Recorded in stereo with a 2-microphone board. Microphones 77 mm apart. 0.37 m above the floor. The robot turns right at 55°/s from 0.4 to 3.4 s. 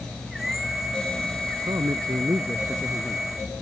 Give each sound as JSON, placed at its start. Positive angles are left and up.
{"t": 1.7, "sound": "a man speaking", "azimuth_deg": -75}